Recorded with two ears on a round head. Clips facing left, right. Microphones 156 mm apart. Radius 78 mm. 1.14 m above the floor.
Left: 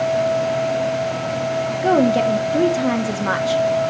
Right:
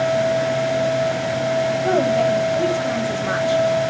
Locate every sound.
1.8 s a woman speaking: 75° left (ahead or behind), 1.8 m